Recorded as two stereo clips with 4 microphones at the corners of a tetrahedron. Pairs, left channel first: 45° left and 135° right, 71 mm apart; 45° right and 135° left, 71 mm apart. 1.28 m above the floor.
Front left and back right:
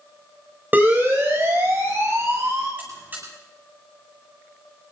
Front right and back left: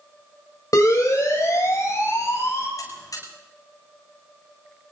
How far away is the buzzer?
About 10 m.